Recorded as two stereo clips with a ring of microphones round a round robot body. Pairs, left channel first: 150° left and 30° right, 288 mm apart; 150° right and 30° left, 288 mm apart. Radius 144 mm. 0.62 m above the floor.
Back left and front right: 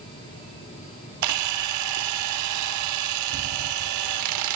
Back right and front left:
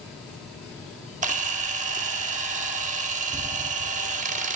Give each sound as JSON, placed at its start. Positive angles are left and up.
{"t": 1.2, "sound": "a camera shutter", "azimuth_deg": -30, "distance_m": 1.1}